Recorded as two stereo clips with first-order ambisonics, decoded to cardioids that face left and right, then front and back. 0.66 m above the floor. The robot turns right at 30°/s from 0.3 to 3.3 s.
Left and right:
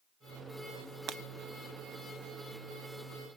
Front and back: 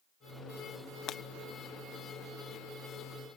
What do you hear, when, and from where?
1.1 s breaking glass: 45° right, 0.5 m; by 1.2 s 40° right, 0.5 m